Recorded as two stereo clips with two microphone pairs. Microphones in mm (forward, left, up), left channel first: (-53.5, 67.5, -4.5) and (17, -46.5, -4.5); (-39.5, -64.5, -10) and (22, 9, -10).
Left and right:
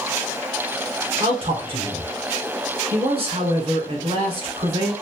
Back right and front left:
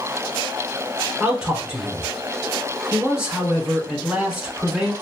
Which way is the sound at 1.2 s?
30° right.